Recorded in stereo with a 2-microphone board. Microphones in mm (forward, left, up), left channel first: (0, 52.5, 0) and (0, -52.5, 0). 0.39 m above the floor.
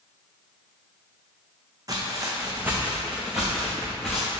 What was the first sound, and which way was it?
Footsteps, 35° right (ahead or behind).